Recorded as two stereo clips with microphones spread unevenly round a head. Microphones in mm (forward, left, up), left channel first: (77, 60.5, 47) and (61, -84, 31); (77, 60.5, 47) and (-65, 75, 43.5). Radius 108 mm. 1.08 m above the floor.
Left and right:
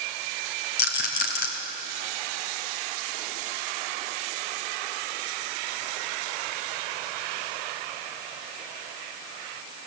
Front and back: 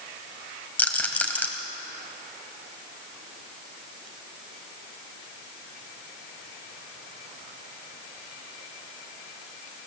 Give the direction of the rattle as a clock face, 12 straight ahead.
10 o'clock.